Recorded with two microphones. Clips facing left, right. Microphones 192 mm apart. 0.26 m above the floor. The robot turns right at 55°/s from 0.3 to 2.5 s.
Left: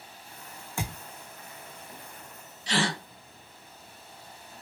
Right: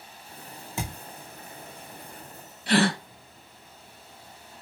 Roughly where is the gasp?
Right.